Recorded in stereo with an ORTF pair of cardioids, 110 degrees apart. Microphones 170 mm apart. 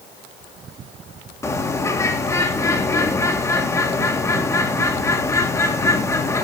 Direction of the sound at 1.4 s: 15° left.